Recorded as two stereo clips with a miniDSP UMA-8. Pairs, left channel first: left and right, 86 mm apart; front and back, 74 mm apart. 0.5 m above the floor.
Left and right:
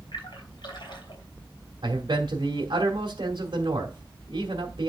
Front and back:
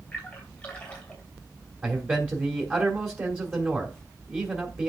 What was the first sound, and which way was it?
A splash, 70° left.